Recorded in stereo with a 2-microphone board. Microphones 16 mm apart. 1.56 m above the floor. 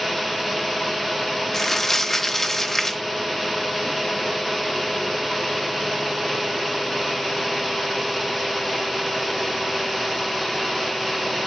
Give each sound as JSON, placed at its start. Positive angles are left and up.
{"t": 1.5, "sound": "crumpling", "side_deg": 20, "distance_m": 0.7}